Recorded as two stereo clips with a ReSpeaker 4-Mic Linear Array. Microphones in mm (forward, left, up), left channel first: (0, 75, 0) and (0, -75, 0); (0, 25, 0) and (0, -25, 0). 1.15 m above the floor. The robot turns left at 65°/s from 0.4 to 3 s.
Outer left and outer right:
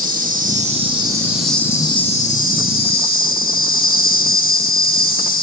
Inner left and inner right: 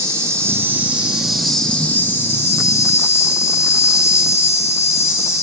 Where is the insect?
110° right, 0.9 m; by 5.4 s 80° left, 0.9 m.